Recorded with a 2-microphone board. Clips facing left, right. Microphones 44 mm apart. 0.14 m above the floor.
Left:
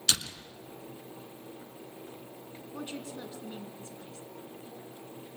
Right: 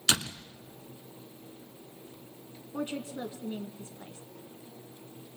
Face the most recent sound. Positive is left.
turn(degrees=-20)  # may be behind; listen again after turning